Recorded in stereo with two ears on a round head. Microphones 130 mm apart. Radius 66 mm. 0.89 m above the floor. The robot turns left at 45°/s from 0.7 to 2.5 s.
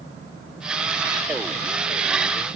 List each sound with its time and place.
Only background noise.